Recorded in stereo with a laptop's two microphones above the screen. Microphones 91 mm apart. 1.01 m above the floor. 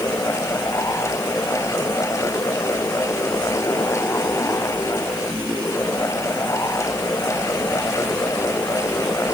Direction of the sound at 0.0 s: 35° left (ahead or behind).